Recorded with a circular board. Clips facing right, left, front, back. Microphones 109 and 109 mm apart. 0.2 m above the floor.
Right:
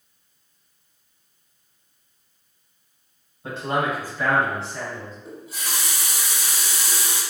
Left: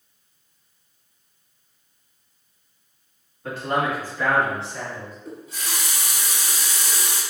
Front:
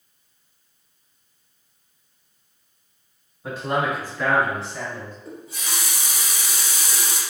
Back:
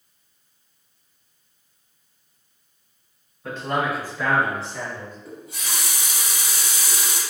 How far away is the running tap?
About 1.6 m.